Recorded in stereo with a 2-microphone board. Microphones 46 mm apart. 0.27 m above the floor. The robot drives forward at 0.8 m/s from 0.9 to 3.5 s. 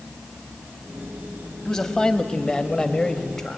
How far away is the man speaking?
About 1.3 m.